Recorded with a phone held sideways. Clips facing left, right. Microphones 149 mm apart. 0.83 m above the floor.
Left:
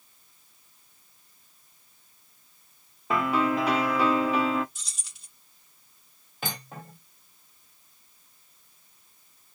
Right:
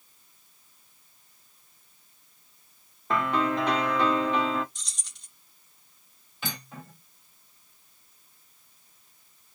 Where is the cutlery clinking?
50° left (ahead or behind), 1.8 m.